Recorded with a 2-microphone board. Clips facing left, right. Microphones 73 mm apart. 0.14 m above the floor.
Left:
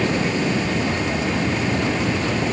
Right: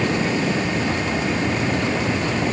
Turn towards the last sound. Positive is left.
No sound to turn to.